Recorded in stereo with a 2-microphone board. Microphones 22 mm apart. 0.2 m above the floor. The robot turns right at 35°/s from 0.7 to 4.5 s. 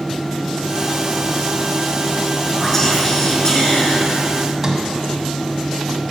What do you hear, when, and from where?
2.6 s whispering: 10° left, 3 m; by 4.1 s 60° left, 3 m
4.6 s a sliding door: 20° right (ahead or behind), 1.1 m